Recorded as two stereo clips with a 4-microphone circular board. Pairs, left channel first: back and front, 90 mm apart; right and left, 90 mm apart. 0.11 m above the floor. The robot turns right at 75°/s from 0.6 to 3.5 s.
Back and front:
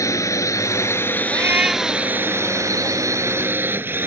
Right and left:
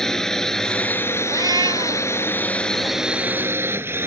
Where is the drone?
170° right; by 4.1 s 45° left.